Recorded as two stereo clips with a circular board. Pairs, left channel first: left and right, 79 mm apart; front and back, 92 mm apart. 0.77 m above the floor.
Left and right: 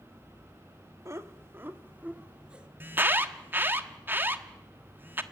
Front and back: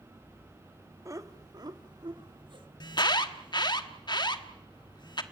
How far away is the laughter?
About 1.9 m.